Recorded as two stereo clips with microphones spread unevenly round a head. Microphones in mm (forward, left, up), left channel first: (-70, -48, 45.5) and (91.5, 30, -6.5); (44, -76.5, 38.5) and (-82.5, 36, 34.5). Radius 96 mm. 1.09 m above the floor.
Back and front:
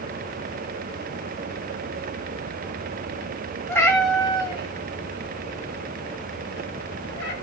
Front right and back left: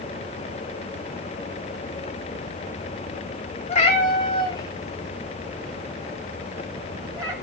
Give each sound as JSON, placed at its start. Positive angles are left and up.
{"t": 3.7, "sound": "a cat meowing", "azimuth_deg": -85, "distance_m": 1.5}